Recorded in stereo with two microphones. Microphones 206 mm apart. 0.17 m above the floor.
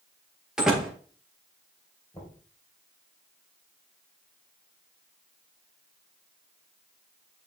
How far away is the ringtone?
No ringtone in this recording.